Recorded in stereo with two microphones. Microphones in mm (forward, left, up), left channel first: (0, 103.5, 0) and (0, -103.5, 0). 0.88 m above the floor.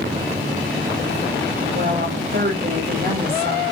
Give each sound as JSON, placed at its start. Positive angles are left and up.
{"t": 1.7, "sound": "a woman speaking", "side_deg": -55, "distance_m": 4.5}